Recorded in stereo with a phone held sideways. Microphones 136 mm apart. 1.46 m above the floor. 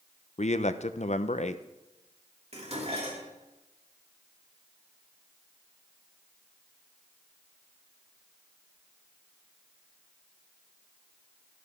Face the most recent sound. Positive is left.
turn(degrees=-50)  # may be behind; listen again after turning